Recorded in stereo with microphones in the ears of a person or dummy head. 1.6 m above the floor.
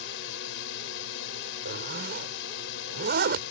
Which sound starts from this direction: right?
A zipper, at 1.6 s.